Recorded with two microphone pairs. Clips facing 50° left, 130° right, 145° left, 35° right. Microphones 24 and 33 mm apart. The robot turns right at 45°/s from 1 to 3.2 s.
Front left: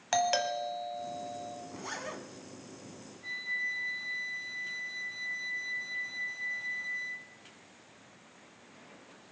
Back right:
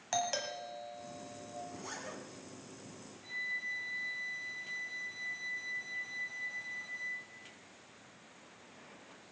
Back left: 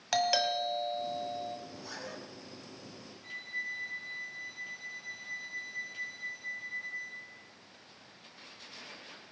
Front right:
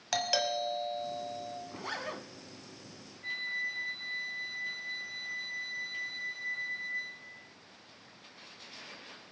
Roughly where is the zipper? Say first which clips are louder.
Front left 4 dB, front right 5 dB; ahead.